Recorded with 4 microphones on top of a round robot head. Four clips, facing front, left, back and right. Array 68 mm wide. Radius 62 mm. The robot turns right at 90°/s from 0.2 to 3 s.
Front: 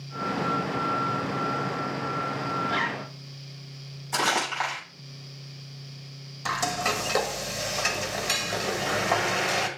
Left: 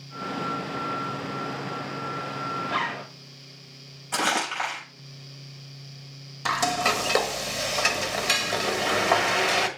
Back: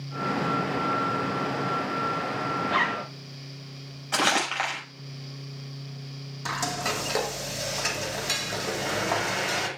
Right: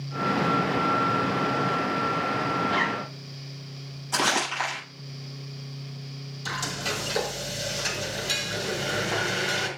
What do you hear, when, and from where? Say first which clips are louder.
2.6 s a zipper: right 3 dB, back 5 dB; 135° left, 3 m; by 3.1 s 165° left, 3 m
4.1 s crumpling: even, back 1 dB; 160° left, 6 m
6.5 s frying: left 7 dB, front 2 dB; 100° left, 1.6 m